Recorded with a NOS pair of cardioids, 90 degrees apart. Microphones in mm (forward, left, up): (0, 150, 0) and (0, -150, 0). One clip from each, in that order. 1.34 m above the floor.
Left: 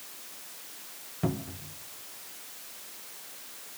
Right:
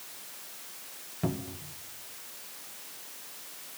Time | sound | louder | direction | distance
1.2 | a cupboard door | left 1 dB | 10° left | 1.2 m